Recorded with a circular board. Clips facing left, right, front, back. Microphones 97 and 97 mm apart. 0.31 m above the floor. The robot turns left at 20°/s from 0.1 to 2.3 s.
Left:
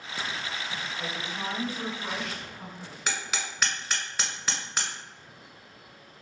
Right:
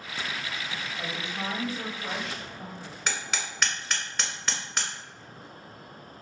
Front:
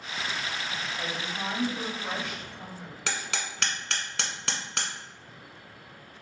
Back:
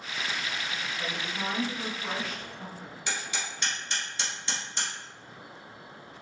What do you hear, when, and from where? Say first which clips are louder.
1.0 s a woman speaking: right 2 dB, even; 40° right, 1.9 m; by 3.0 s 65° right, 1.9 m
3.1 s hammering: even, front 1 dB; 5° left, 1.0 m